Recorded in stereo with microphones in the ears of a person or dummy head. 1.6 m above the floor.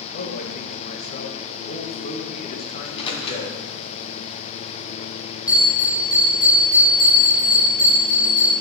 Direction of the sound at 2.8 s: 25° left (ahead or behind).